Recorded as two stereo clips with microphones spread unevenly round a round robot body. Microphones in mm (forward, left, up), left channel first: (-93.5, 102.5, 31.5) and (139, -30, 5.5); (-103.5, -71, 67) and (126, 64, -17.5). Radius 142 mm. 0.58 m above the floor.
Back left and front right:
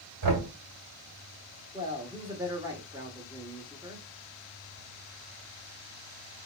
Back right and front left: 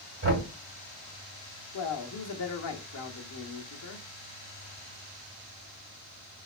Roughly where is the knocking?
Ahead.